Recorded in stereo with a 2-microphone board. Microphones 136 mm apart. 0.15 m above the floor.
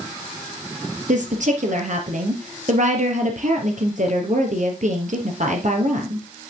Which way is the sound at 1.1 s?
65° right (ahead or behind).